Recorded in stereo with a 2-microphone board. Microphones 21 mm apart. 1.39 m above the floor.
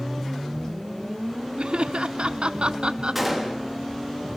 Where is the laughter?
60° right (ahead or behind), 0.6 m.